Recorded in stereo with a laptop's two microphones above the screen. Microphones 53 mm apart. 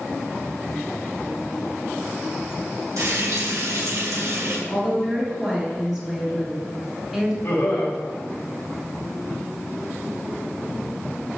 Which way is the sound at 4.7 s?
15° right (ahead or behind).